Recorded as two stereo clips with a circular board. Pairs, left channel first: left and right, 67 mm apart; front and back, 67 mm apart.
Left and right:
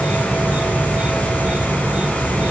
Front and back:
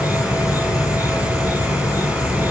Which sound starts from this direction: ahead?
An insect, at 0.0 s.